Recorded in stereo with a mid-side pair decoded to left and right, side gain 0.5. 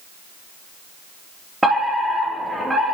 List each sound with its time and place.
1.6 s a fire alarm: 15° right, 4 m